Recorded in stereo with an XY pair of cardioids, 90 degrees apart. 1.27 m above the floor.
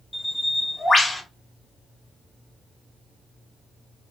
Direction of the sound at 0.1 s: 25° left.